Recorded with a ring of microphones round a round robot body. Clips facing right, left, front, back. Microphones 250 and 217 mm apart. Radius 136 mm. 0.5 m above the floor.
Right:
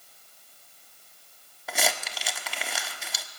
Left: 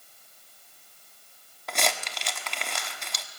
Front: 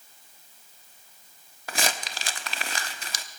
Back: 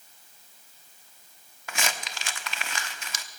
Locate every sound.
1.7 s crumpling: 5° right, 1.1 m